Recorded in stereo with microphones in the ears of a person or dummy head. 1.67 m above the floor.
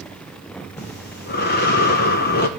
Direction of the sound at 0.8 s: 50° left (ahead or behind).